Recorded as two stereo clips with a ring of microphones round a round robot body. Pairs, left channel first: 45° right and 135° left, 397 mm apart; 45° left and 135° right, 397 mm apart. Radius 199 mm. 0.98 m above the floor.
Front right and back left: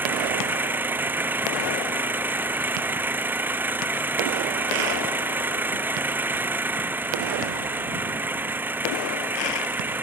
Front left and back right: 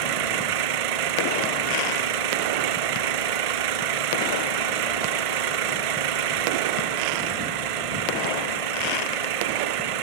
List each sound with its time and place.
0.0 s an engine running: 140° right